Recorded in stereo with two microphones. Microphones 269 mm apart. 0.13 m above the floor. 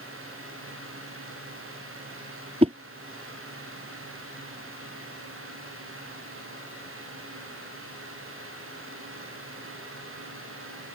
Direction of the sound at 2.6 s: 20° right (ahead or behind).